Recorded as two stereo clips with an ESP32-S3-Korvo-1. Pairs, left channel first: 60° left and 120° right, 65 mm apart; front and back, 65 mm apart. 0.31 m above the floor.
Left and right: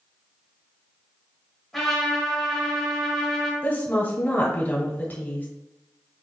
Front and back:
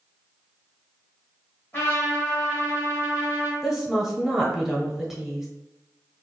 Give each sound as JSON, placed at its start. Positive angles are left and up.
{"t": 1.7, "sound": "a trumpet", "azimuth_deg": -20, "distance_m": 1.7}
{"t": 3.6, "sound": "a woman speaking", "azimuth_deg": 100, "distance_m": 1.0}